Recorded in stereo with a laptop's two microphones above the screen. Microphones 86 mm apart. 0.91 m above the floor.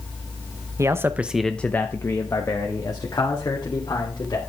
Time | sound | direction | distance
0.8 | a man speaking | 35° right (ahead or behind) | 0.8 m